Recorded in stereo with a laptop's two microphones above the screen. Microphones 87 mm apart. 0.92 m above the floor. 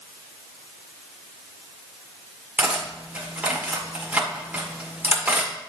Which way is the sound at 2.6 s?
20° right (ahead or behind).